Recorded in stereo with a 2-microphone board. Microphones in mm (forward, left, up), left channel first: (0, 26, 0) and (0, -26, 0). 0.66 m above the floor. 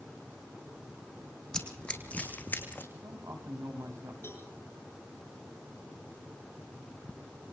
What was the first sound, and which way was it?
Running footsteps, 10° left (ahead or behind).